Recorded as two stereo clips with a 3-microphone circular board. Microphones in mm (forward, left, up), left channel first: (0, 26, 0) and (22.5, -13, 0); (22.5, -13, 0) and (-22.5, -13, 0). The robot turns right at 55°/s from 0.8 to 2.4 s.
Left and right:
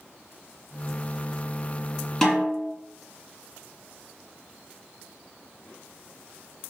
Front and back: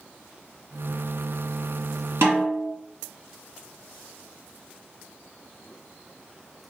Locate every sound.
2.2 s a snare drum: 165° right, 1.6 m; by 2.7 s 155° right, 1.6 m